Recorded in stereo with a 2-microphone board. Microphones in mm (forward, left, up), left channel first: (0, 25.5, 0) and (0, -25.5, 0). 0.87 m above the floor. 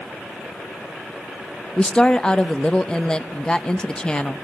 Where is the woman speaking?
20° left (ahead or behind), 0.8 m.